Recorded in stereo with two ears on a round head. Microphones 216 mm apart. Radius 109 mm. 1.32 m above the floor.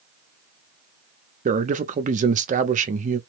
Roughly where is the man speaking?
Right.